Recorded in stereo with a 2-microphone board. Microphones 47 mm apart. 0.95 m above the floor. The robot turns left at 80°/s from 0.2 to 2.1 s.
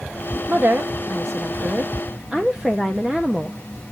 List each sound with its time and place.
0.5 s a woman speaking: 35° right, 1.0 m; by 3.6 s 165° right, 1.0 m